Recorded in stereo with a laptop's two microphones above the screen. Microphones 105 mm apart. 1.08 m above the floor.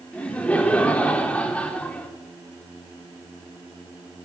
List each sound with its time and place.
0.1 s laughter: 10° left (ahead or behind), 4 m